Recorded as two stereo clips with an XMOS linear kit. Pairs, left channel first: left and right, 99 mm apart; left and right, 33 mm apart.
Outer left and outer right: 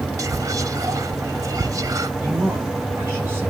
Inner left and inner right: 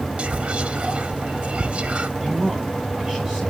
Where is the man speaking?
20° right (ahead or behind), 5 m.